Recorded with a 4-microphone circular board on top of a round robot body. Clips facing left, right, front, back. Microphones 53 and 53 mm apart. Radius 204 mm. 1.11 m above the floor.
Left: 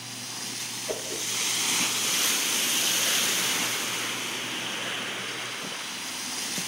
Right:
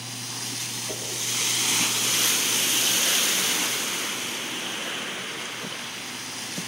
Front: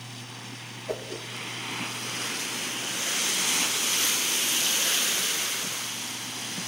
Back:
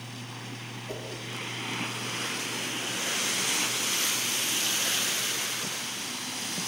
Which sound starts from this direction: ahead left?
A whoosh, at 0.9 s.